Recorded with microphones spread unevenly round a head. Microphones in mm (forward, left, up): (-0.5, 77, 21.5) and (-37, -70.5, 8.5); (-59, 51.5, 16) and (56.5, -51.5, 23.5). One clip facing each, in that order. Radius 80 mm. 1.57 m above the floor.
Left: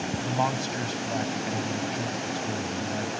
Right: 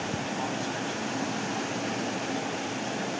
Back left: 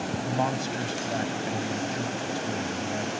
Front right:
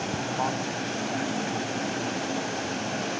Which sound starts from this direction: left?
A man speaking, at 0.2 s.